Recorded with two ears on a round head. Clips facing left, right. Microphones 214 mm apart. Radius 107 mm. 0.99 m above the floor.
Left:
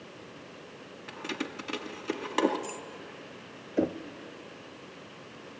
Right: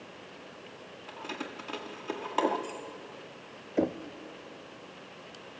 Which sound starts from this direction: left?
Keys jangling, at 1.1 s.